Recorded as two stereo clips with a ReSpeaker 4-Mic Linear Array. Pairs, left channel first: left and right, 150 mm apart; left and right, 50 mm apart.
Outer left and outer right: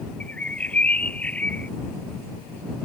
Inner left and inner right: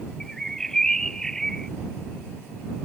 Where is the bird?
10° left (ahead or behind).